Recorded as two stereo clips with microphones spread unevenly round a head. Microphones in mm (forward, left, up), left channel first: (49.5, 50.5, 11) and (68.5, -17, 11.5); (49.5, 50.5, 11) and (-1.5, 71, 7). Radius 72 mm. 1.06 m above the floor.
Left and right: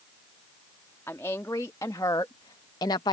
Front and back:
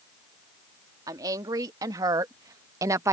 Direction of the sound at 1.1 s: 175° left.